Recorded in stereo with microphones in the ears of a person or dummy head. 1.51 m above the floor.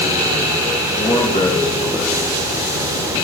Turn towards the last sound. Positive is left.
turn(degrees=-5)  # may be behind; listen again after turning